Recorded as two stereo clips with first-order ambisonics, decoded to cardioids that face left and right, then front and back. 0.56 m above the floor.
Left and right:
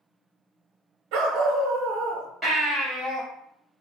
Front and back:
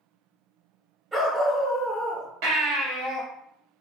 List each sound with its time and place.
1.1 s a dog barking: 105° right, 0.9 m
2.4 s a baby crying: 165° right, 1.7 m